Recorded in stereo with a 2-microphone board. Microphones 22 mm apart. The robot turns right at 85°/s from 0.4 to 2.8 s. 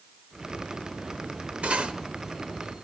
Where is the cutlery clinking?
75° right (ahead or behind), 1.0 m; by 1.9 s 50° right (ahead or behind), 1.0 m.